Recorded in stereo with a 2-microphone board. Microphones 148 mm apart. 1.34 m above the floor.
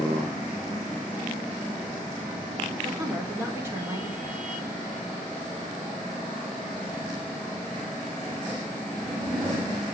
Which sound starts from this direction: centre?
A woman speaking, at 2.8 s.